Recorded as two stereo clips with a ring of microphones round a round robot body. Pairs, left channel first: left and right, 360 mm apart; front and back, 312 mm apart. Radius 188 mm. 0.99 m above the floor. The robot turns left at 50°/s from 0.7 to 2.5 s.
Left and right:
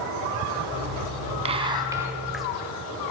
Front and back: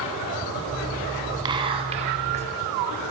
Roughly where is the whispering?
Behind right.